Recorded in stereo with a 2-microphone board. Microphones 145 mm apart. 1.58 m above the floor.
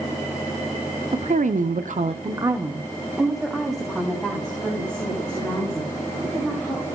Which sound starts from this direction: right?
A woman speaking, at 1.1 s.